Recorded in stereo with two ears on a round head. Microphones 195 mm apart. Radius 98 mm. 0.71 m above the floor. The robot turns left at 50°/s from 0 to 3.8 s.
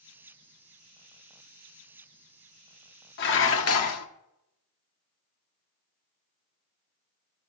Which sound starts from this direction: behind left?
Dishes clattering, at 3.2 s.